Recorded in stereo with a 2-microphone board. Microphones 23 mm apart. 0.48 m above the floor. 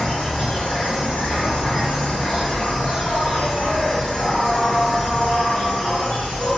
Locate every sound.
0.0 s an insect: 55° left (ahead or behind), 1.5 m